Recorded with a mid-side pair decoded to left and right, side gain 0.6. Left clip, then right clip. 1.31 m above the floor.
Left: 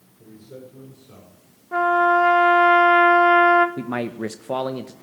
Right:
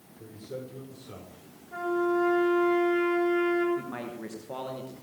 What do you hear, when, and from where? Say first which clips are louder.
0.2 s a man speaking: right 2 dB; 20° right, 6 m
1.7 s a trumpet: left 11 dB; 60° left, 1.8 m
3.8 s a man speaking: left 9 dB; 55° left, 0.8 m